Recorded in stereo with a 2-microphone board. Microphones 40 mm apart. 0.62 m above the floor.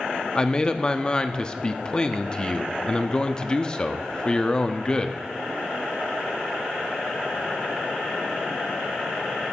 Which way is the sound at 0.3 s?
25° left (ahead or behind).